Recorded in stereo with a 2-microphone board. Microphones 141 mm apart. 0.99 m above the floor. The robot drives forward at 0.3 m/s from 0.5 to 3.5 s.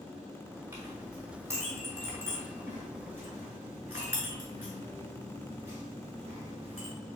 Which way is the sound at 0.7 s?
15° right (ahead or behind).